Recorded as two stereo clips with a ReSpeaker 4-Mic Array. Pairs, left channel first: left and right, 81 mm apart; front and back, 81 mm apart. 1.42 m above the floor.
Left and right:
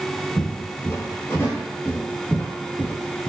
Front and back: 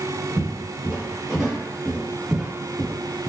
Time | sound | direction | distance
0.4 | footsteps | 135° left | 1.8 m